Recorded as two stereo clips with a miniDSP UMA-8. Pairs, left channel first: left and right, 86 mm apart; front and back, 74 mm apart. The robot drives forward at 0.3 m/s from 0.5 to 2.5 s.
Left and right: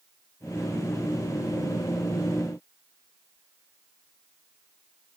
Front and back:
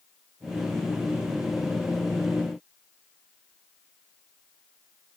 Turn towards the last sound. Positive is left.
No sound to turn to.